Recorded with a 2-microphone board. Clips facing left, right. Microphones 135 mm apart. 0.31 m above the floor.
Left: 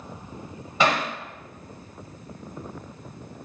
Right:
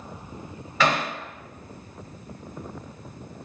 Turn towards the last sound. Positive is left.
turn(degrees=20)  # may be behind; listen again after turning